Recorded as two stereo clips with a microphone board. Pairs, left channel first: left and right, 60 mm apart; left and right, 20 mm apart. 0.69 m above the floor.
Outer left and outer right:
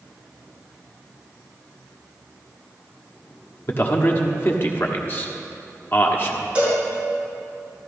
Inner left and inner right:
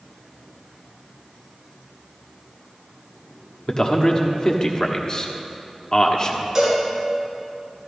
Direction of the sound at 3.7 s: 40° left (ahead or behind).